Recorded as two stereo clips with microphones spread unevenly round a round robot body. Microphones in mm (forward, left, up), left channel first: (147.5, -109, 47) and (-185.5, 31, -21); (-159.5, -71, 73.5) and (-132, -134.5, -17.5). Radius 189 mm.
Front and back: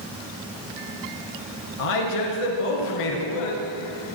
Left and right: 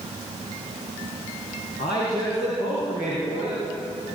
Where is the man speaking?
5° left, 6 m.